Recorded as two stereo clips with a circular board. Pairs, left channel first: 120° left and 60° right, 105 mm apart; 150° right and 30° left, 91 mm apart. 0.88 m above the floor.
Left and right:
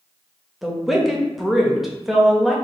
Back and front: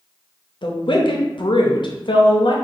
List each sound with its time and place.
0.6 s a woman speaking: 150° right, 0.6 m